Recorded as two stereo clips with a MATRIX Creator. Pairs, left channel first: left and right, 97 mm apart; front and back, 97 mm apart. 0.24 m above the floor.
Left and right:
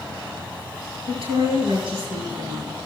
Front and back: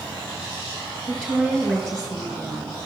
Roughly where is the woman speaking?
Right.